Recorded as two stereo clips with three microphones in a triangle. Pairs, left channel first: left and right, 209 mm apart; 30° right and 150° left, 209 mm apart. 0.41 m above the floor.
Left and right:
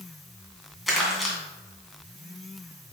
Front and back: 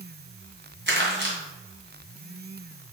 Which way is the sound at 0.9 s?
Straight behind.